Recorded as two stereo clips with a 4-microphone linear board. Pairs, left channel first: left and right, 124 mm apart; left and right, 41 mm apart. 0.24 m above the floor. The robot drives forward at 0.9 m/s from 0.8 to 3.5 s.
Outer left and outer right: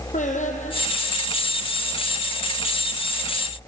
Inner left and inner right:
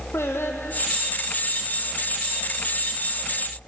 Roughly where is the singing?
Left.